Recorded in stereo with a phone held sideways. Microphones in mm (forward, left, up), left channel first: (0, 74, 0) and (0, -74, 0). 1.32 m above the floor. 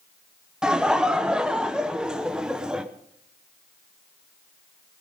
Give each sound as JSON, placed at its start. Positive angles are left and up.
{"t": 0.6, "sound": "laughter", "side_deg": -5, "distance_m": 1.0}